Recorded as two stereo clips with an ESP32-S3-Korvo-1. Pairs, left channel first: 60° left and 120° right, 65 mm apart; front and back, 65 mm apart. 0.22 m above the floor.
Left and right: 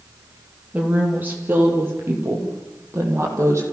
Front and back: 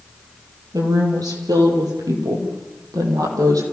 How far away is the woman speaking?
About 5.5 m.